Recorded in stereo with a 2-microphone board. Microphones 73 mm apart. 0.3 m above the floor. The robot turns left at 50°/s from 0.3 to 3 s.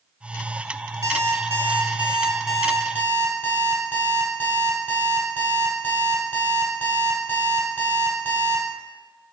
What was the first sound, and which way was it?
An alarm clock, 105° right.